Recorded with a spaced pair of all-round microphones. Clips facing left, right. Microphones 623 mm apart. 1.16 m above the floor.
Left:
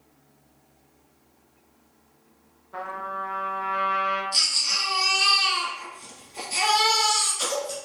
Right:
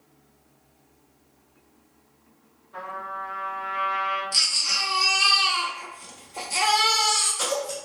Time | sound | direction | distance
2.7 | a trumpet | 70° left (ahead or behind) | 0.8 m
4.3 | a baby crying | 70° right (ahead or behind) | 0.8 m